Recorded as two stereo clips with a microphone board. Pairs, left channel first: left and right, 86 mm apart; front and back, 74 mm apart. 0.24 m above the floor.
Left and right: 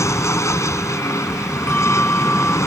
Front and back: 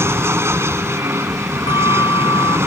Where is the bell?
20° left.